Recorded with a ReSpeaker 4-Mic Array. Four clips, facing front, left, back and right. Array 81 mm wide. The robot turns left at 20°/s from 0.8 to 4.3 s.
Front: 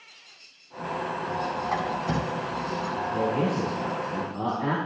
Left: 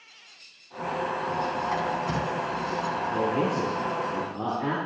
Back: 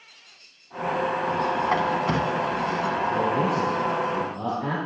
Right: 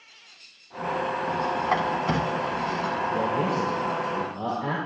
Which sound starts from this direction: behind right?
A squeak, at 1.6 s.